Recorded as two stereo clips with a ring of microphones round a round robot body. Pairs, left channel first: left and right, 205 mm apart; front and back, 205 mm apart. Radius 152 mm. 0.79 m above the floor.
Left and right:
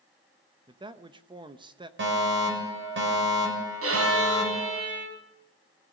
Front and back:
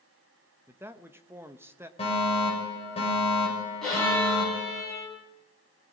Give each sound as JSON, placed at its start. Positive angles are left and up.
{"t": 0.7, "sound": "a man speaking", "azimuth_deg": -120, "distance_m": 1.0}
{"t": 2.0, "sound": "a fire alarm", "azimuth_deg": -70, "distance_m": 6.5}
{"t": 3.8, "sound": "a violin", "azimuth_deg": -90, "distance_m": 6.5}